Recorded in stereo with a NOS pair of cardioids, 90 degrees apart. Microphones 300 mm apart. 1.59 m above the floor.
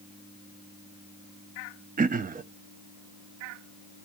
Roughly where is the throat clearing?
Ahead right.